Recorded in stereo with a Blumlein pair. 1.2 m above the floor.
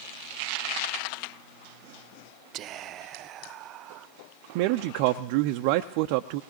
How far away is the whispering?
About 0.6 m.